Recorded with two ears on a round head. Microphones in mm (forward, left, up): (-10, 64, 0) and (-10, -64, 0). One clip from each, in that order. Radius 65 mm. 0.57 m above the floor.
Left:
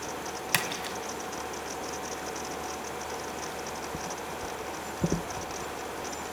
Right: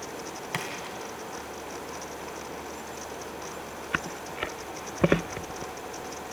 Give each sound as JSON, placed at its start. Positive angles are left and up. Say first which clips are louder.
{"t": 0.5, "sound": "a splash", "louder": "left 5 dB", "side_deg": 85, "distance_m": 2.5}